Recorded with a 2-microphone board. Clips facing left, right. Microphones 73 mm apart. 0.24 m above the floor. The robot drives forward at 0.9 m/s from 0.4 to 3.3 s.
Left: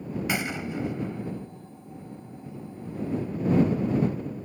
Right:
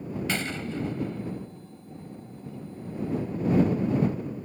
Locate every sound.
0.3 s a gunshot: 15° left (ahead or behind)